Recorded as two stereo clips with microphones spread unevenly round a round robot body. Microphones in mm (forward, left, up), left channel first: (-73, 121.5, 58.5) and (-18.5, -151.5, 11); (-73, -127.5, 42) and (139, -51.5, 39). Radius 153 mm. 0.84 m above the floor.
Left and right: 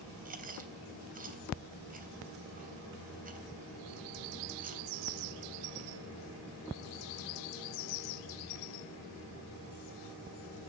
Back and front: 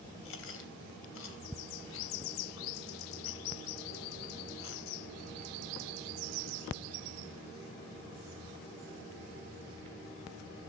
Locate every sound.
0.2 s chewing: 140° right, 3 m